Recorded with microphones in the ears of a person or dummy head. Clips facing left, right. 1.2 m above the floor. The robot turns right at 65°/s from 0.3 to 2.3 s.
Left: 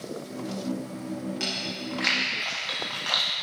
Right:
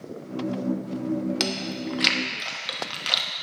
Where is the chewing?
70° right (ahead or behind), 1.0 m; by 3.3 s 35° right (ahead or behind), 1.0 m.